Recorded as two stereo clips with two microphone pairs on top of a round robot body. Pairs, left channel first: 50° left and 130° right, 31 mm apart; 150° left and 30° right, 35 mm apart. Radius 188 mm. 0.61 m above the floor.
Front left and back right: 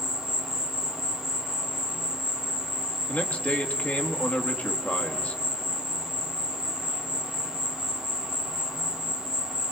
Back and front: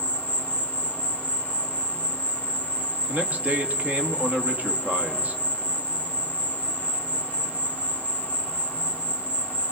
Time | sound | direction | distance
0.0 | an insect | 60° right | 3.5 m
3.1 | a man speaking | 20° left | 1.9 m